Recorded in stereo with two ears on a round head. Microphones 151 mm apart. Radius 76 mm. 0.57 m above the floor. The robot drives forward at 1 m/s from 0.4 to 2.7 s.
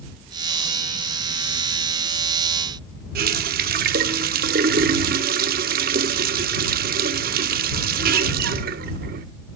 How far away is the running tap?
About 0.8 m.